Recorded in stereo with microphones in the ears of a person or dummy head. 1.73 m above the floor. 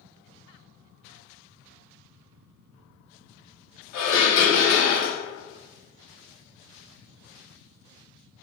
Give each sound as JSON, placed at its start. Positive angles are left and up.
{"t": 3.9, "sound": "dishes clattering", "side_deg": 45, "distance_m": 1.4}